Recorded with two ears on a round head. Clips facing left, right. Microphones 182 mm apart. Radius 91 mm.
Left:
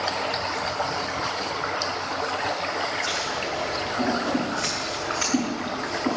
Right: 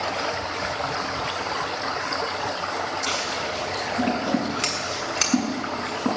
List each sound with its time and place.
3.1 s scissors: 40° right (ahead or behind), 7 m